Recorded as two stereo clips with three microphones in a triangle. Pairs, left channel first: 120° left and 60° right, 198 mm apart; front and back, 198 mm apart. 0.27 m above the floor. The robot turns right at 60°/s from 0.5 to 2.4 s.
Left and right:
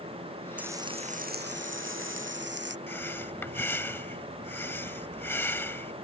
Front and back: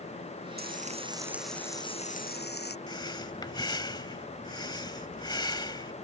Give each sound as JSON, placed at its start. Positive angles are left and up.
{"t": 0.6, "sound": "frying", "azimuth_deg": -145}
{"t": 2.9, "sound": "breathing", "azimuth_deg": 50}